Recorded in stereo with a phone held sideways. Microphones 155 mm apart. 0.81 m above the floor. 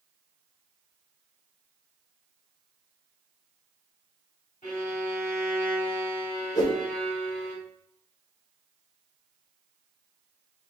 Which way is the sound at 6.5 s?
25° left (ahead or behind).